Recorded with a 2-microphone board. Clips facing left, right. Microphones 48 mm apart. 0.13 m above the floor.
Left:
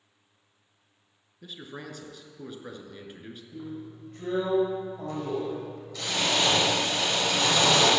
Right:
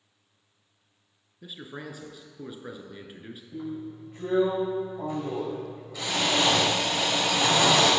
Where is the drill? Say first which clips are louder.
Right 4 dB; 15° right (ahead or behind), 4.5 m.